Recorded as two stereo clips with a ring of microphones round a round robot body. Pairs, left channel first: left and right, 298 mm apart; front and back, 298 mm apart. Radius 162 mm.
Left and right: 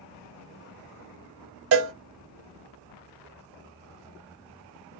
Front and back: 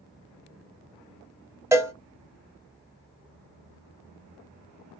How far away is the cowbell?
About 0.7 m.